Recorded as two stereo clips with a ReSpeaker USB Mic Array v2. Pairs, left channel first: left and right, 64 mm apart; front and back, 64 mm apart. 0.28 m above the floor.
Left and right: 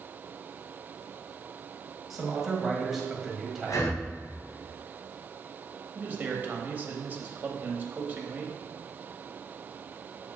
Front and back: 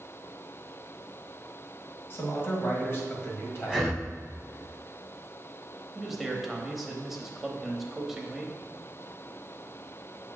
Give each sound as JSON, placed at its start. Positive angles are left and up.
{"t": 2.1, "sound": "a man speaking", "azimuth_deg": -5, "distance_m": 1.8}
{"t": 3.6, "sound": "breathing", "azimuth_deg": 85, "distance_m": 1.3}
{"t": 6.0, "sound": "a man speaking", "azimuth_deg": -95, "distance_m": 1.0}